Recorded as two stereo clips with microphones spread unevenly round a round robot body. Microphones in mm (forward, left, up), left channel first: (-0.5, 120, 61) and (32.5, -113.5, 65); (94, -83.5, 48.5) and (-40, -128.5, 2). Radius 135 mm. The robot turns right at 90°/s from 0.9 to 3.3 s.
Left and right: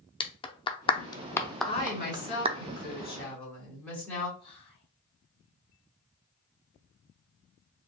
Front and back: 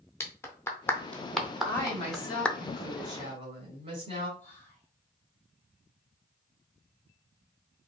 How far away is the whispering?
About 1.3 m.